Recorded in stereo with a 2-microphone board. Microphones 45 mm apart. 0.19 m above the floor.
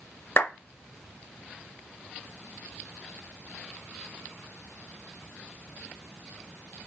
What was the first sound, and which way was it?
A clap, 55° left (ahead or behind).